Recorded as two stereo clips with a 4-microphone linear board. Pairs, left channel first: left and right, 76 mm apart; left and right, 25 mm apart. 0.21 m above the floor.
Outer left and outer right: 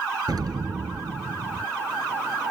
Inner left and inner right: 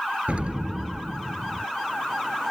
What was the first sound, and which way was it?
An explosion, 60° right (ahead or behind).